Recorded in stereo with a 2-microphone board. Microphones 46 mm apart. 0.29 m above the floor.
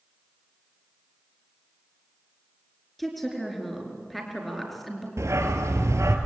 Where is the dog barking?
80° right, 2.5 m.